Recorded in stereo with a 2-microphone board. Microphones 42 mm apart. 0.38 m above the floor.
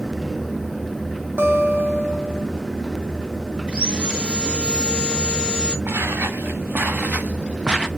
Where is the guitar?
55° right (ahead or behind), 3 m.